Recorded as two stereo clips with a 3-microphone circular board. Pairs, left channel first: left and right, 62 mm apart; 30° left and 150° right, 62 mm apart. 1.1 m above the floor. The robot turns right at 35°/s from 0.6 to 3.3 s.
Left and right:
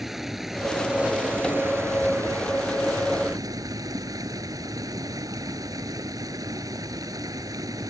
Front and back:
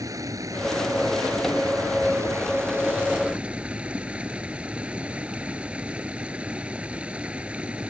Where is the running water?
175° right; by 7.9 s 80° right.